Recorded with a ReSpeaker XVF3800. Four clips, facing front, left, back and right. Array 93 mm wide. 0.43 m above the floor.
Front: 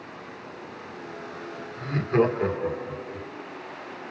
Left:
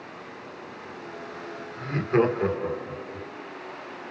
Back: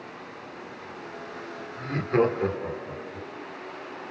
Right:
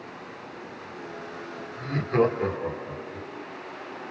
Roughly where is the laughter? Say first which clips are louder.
Left 1 dB, front 1 dB; behind left.